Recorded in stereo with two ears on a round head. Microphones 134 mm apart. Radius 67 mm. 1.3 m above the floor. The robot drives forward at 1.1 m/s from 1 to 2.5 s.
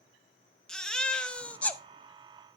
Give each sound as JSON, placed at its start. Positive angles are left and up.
{"t": 0.7, "sound": "a baby crying", "side_deg": 5, "distance_m": 0.9}